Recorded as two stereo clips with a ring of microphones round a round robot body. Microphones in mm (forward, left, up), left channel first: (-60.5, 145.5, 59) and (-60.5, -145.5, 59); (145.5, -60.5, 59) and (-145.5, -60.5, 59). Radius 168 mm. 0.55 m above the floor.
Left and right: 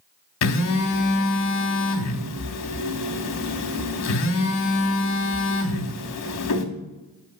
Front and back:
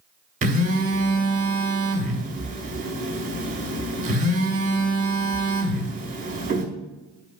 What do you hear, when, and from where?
0.4 s a phone buzzing: 115° left, 0.9 m